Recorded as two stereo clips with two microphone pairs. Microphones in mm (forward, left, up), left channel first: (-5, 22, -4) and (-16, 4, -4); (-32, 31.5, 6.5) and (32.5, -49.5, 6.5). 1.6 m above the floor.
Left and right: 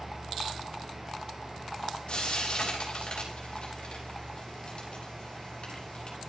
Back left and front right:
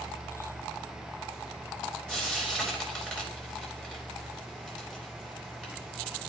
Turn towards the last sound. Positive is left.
turn(degrees=45)